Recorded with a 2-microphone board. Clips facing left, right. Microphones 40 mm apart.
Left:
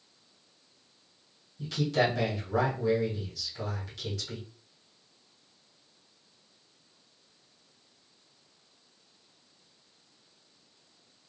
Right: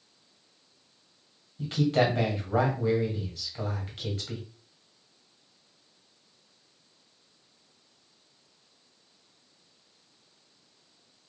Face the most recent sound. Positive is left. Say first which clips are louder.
# right 3 dB
turn(degrees=-40)  # may be behind; listen again after turning